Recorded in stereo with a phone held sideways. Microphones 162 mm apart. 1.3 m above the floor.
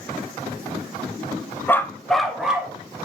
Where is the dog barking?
15° left (ahead or behind), 0.7 m; by 2.8 s 5° right (ahead or behind), 1.5 m.